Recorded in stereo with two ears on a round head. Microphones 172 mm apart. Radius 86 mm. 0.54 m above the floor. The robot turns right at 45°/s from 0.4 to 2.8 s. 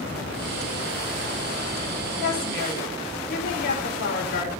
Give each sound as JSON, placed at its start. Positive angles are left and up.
{"t": 2.2, "sound": "a woman speaking", "side_deg": 80, "distance_m": 4.5}